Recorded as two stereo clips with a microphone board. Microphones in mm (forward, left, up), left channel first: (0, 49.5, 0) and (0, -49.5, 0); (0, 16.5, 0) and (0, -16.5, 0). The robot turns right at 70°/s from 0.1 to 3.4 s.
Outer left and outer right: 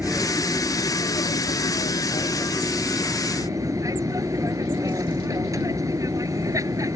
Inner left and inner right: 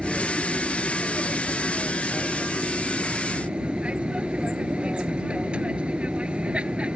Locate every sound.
0.0 s an aircraft: 15° right; by 7.0 s 145° right